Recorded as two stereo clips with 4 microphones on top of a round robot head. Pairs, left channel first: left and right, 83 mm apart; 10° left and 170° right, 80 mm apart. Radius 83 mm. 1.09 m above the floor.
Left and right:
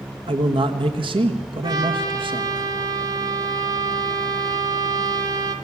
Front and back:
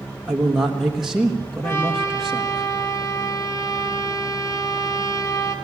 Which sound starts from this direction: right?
A man speaking, at 0.3 s.